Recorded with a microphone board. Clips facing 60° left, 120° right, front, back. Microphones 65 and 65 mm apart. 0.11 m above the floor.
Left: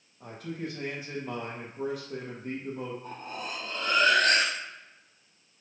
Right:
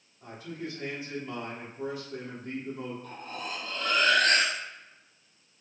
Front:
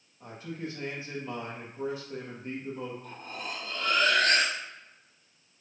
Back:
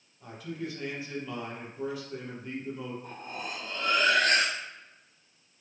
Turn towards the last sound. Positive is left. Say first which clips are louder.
# left 1 dB, back 1 dB
turn(degrees=115)